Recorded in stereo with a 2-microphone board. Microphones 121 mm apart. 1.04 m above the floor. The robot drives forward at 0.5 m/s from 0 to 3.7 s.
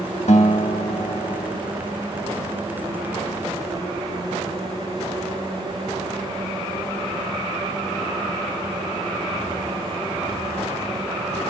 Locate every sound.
0.3 s a guitar: 70° left (ahead or behind), 1.7 m; by 1.6 s 65° left (ahead or behind), 1.8 m